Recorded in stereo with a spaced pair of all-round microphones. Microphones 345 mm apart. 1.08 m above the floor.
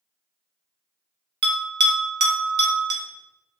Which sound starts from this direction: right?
A bell, at 1.4 s.